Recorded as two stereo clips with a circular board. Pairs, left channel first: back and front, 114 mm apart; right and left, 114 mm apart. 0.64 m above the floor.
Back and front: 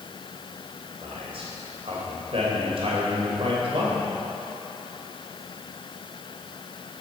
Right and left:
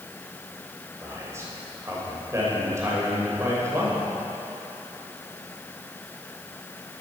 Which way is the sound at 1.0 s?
25° left.